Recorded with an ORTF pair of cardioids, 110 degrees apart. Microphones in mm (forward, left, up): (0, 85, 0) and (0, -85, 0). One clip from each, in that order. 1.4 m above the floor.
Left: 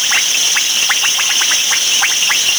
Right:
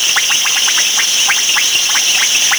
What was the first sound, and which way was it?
Only background noise.